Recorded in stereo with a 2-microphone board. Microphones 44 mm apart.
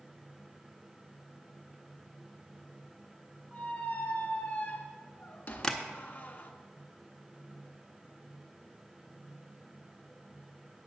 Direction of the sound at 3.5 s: 40° left (ahead or behind).